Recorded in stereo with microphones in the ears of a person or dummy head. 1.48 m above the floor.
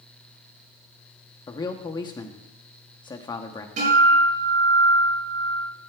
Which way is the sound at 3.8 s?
40° right (ahead or behind).